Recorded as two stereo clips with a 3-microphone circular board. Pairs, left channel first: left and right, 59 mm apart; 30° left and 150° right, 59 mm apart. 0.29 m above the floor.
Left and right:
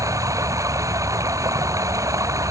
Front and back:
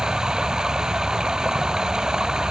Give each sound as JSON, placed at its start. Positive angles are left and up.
{"t": 0.0, "sound": "running water", "azimuth_deg": -70}